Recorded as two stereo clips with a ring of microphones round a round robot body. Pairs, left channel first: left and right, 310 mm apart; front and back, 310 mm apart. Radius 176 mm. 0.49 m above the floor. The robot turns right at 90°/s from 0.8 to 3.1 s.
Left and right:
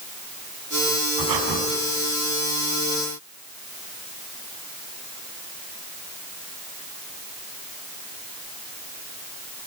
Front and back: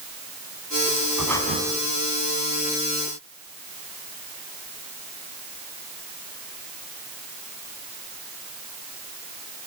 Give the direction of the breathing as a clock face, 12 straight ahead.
3 o'clock.